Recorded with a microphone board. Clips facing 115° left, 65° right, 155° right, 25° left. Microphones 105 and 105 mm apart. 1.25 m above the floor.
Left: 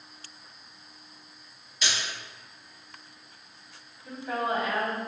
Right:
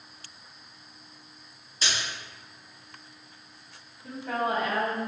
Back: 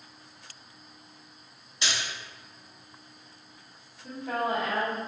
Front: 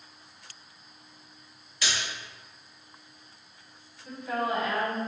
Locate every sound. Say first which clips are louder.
1.8 s a splash: even, even; 100° right, 1.6 m
4.0 s a woman speaking: right 1 dB, even; 110° right, 1.8 m